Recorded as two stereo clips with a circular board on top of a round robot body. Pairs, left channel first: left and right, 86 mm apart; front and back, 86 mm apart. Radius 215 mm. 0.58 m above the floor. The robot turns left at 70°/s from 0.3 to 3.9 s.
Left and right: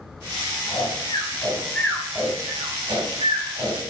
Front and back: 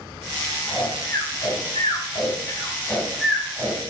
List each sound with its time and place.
0.7 s snoring: 85° left, 4.5 m; by 3.8 s 130° right, 4.5 m